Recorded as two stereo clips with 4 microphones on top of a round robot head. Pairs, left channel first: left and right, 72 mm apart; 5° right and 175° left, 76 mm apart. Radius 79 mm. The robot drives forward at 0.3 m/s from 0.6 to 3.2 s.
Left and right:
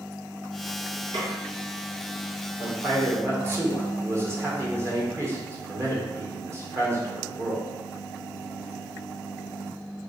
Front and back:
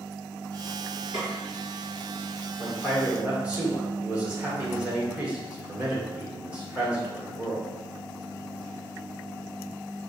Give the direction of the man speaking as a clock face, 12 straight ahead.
4 o'clock.